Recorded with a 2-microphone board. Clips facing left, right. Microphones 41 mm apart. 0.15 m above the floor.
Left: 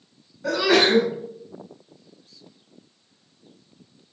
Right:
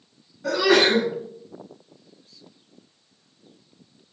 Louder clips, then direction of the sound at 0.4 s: Even; 5° left (ahead or behind).